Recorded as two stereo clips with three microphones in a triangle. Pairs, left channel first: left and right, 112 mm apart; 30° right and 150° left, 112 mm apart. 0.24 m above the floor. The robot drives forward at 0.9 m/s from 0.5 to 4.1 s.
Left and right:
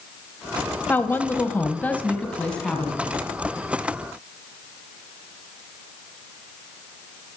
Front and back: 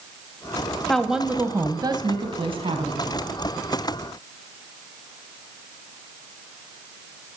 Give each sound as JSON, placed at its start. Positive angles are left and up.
{"t": 0.9, "sound": "a woman speaking", "azimuth_deg": 45, "distance_m": 1.0}